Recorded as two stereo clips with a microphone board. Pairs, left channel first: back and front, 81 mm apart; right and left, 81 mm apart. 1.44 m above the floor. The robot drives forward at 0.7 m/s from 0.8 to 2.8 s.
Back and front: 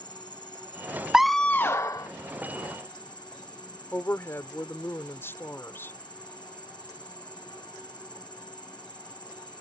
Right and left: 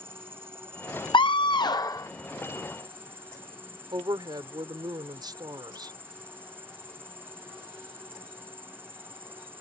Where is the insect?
150° left; by 9.6 s 155° left.